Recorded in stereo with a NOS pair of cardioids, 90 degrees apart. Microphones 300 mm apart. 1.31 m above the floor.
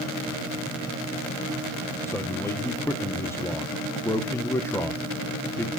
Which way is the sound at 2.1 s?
10° left.